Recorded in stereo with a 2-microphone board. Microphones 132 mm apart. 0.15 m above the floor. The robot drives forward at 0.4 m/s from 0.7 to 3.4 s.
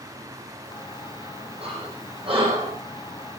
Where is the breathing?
45° right (ahead or behind), 6.5 m; by 2.8 s 40° right (ahead or behind), 7 m.